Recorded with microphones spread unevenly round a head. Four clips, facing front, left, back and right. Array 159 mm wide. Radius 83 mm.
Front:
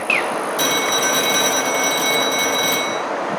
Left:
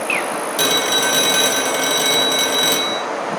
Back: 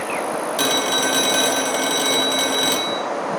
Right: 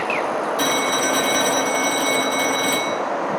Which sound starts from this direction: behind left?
A phone ringing, at 0.6 s.